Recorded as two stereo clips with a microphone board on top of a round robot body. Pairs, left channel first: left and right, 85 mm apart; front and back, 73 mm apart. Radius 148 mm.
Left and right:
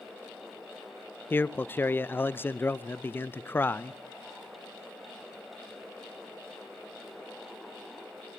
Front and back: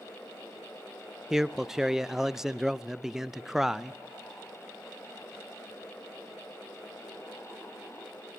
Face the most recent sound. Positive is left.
turn(degrees=100)